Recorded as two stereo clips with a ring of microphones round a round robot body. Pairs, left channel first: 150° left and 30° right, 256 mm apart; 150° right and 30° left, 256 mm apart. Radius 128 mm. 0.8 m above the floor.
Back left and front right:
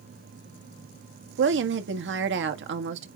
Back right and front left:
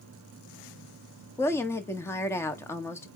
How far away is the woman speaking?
About 1.5 m.